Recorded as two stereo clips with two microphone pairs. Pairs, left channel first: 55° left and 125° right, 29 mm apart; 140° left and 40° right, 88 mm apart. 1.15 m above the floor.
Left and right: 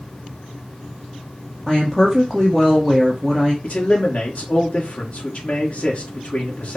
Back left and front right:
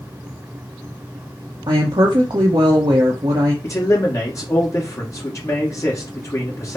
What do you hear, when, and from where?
1.7 s a woman speaking: 25° right, 0.9 m
3.6 s a man speaking: 90° left, 1.2 m